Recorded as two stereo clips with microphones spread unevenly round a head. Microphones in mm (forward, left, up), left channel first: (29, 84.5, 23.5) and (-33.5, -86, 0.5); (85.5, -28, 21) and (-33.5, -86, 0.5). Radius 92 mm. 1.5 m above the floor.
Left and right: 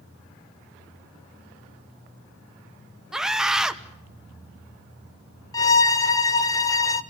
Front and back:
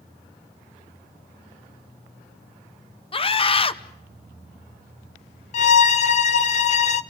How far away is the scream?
About 1.1 m.